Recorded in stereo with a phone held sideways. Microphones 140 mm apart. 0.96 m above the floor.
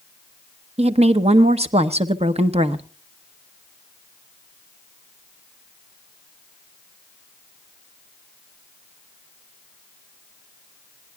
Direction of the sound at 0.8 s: 50° right (ahead or behind).